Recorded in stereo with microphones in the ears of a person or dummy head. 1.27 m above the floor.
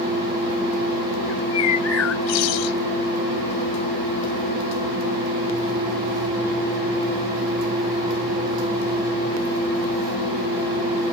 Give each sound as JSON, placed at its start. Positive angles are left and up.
{"t": 1.3, "sound": "a bird", "side_deg": 85}